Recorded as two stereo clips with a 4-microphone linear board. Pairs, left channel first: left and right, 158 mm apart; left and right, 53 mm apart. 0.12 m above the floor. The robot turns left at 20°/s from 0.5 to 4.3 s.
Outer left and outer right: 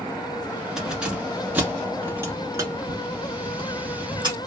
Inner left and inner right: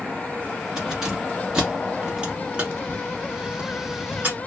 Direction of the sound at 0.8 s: 5° right (ahead or behind).